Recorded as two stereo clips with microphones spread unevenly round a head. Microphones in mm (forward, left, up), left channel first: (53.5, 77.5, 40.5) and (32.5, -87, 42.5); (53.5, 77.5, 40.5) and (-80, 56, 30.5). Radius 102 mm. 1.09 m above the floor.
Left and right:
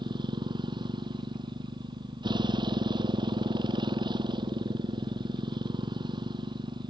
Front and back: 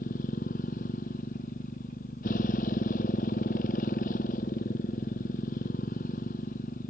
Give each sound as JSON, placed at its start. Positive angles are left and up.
{"t": 0.0, "sound": "a motorcycle", "azimuth_deg": -35}